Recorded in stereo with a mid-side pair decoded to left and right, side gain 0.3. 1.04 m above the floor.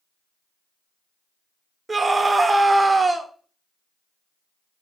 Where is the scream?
35° right, 3 m.